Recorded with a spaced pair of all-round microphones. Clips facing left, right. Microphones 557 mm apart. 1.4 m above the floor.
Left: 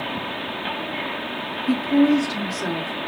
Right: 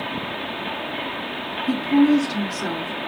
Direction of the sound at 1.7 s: 5° right (ahead or behind).